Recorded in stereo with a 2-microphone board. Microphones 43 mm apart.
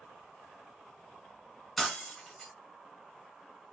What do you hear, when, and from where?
1.8 s breaking glass: 5° left (ahead or behind), 1.0 m